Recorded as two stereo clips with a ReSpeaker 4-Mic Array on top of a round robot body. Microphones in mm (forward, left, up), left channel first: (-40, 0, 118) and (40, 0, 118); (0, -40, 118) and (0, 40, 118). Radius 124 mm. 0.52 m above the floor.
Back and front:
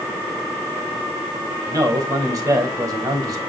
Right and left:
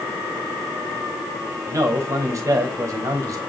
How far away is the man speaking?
About 4.5 m.